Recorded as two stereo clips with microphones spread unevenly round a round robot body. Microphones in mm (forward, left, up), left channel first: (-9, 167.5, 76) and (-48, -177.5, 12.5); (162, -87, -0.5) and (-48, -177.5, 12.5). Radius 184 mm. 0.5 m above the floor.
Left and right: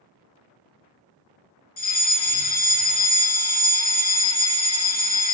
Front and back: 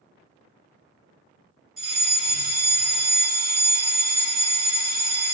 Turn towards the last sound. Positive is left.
turn(degrees=140)